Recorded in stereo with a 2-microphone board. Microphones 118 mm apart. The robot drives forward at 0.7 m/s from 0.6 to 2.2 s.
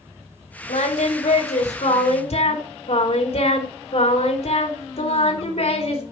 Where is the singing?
85° left, 2.5 m; by 6.0 s 65° left (ahead or behind), 3 m.